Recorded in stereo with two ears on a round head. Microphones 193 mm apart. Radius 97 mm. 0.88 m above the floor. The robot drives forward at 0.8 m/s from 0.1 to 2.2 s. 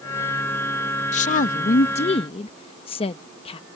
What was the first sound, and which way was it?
A woman speaking, 35° left (ahead or behind).